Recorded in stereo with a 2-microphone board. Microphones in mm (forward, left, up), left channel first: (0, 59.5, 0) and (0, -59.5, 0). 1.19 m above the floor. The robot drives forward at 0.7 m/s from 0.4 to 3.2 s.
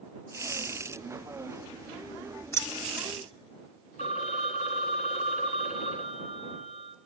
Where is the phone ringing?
75° left (ahead or behind), 1.2 m.